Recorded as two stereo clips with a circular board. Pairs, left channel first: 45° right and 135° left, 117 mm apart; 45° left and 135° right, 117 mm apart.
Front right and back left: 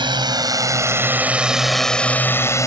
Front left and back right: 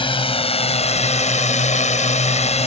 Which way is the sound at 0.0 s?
85° left.